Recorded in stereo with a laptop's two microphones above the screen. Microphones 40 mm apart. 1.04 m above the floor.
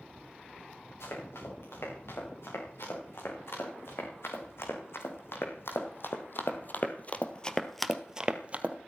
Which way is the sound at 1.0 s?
85° left.